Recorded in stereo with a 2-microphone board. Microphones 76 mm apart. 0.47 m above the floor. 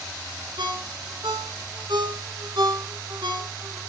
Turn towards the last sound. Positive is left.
turn(degrees=-80)